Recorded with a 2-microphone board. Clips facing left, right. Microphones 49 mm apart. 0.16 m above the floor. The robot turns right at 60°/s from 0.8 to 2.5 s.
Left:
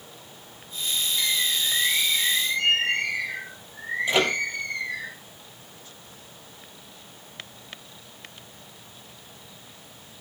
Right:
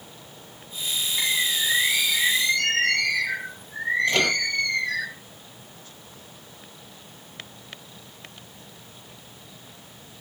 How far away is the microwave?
About 4 m.